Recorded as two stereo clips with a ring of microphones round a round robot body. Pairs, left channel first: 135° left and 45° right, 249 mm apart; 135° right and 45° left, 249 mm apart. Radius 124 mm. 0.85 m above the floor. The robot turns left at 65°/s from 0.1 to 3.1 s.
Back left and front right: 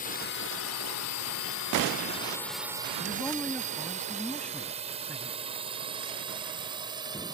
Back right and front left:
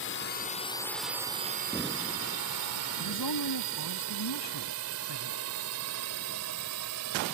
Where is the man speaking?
135° right; by 5.4 s 140° right.